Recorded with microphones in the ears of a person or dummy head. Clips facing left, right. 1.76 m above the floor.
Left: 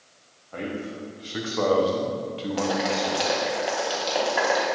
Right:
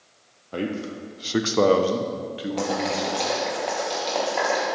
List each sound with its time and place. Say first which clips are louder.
0.5 s a man speaking: right 3 dB; 50° right (ahead or behind), 0.7 m; by 3.4 s centre (ahead or behind), 1.4 m
2.6 s boiling: left 1 dB; 10° left (ahead or behind), 1.7 m